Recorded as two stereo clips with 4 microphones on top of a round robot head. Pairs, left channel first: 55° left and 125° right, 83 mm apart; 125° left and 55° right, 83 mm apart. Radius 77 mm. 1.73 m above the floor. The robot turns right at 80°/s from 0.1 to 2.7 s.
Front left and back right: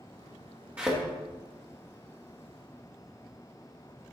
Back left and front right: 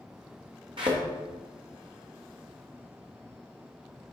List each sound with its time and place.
0.8 s a thud: 60° right, 1.2 m; by 1.0 s 45° right, 1.2 m